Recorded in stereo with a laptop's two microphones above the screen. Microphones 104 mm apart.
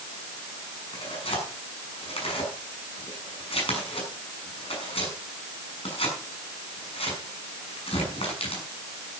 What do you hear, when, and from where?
0.9 s tearing paper: 65° left (ahead or behind), 6.5 m